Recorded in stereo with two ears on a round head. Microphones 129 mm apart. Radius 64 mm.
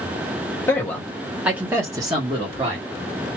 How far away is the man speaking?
About 0.9 m.